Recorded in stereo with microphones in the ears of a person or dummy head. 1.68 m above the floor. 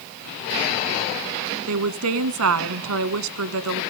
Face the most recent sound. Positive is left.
turn(degrees=-75)  # may be behind; listen again after turning